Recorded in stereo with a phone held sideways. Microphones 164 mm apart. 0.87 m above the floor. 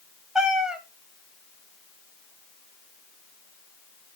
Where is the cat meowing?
5° right (ahead or behind), 1.9 m.